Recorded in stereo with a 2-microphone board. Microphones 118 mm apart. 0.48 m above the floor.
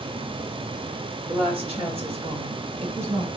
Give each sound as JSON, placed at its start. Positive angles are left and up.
{"t": 1.3, "sound": "a woman speaking", "side_deg": -50, "distance_m": 1.8}